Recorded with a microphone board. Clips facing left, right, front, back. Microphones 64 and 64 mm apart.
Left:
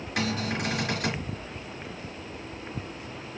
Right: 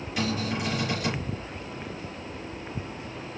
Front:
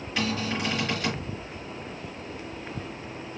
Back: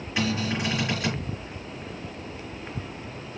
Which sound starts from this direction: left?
A cupboard door, at 0.2 s.